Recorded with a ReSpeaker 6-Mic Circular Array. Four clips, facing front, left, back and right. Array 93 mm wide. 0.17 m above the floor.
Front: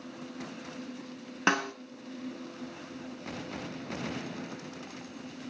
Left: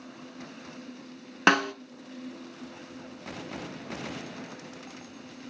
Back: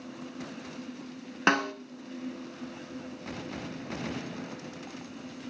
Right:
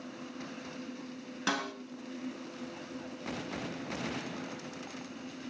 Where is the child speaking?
I don't hear a child speaking.